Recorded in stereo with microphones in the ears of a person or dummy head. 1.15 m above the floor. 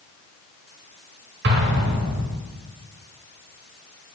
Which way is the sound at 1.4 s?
60° right (ahead or behind).